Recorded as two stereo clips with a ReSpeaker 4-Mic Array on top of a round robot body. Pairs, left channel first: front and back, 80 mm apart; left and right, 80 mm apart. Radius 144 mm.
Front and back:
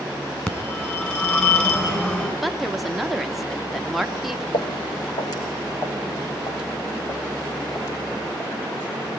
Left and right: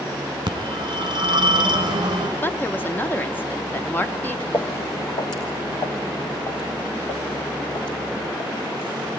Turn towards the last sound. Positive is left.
turn(degrees=55)